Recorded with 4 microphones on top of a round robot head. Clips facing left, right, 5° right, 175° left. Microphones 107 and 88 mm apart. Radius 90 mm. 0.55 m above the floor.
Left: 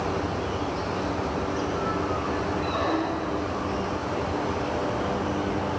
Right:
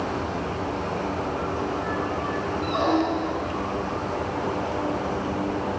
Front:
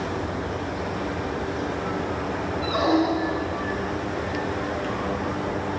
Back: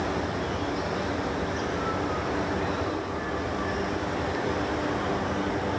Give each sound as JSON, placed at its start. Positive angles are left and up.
{"t": 2.6, "sound": "a squeak", "azimuth_deg": -20}